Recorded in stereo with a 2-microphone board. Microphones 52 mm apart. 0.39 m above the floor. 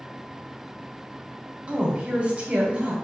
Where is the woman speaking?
25° right (ahead or behind), 1.1 m.